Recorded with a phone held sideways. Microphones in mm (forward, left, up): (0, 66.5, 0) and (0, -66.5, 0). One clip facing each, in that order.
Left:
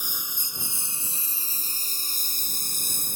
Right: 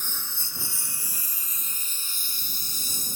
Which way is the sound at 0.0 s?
10° left (ahead or behind).